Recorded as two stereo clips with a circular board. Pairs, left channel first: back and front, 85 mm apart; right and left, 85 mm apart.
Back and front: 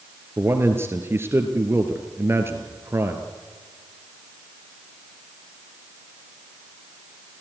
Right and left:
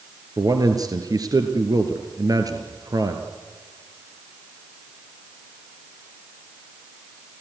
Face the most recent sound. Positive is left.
turn(degrees=55)